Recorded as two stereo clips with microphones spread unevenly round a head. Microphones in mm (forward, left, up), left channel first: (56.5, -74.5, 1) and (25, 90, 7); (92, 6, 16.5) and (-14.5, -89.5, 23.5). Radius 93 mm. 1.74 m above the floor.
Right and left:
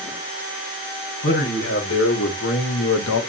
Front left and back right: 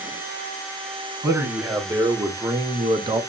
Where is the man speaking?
65° right, 1.5 m; by 3.2 s 80° right, 0.5 m.